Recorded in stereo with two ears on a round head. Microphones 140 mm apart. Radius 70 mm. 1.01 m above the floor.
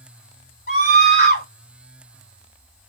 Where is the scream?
65° left (ahead or behind), 4 m.